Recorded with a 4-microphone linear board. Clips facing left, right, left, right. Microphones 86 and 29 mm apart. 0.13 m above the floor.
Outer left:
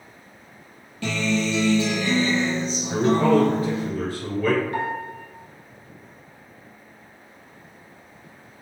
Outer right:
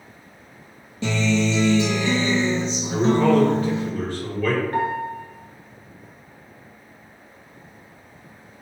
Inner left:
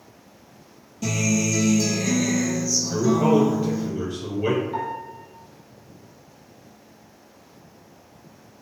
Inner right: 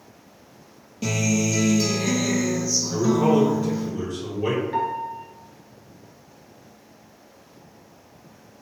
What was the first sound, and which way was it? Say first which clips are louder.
A guitar: outer right 3 dB, even; 25° right (ahead or behind).